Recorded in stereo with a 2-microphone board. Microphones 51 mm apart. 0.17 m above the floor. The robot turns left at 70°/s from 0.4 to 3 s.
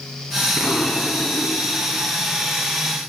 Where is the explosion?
140° left, 1.3 m; by 2.1 s 30° left, 1.3 m.